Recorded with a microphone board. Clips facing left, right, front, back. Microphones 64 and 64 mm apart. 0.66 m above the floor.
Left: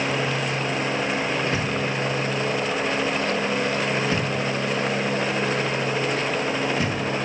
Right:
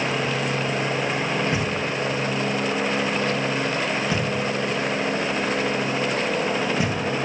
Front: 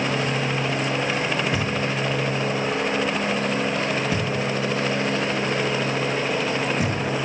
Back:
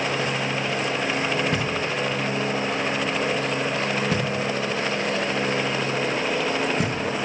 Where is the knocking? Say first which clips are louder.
Even, front 1 dB; 165° right, 5 m.